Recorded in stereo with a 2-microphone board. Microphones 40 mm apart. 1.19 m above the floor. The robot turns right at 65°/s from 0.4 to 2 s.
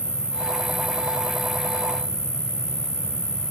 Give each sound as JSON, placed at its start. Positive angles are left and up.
{"t": 0.0, "sound": "an insect", "azimuth_deg": -20, "distance_m": 1.6}